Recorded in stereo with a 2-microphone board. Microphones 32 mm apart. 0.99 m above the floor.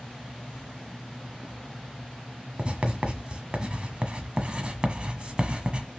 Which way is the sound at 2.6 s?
35° right (ahead or behind).